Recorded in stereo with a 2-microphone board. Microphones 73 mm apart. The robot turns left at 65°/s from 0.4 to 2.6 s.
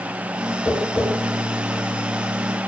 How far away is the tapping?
About 1.5 m.